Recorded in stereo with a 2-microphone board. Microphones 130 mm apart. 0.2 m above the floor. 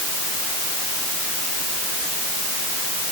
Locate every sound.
Only background noise.